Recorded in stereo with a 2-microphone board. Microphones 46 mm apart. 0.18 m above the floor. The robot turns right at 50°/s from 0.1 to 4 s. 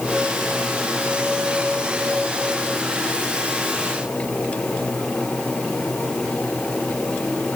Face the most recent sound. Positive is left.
No sound to turn to.